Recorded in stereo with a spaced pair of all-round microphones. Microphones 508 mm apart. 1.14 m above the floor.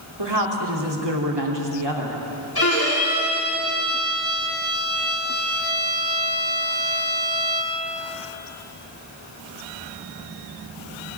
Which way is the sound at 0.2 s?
55° right (ahead or behind).